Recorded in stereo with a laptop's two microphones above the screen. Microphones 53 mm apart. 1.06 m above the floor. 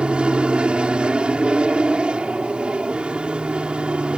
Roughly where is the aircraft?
Centre.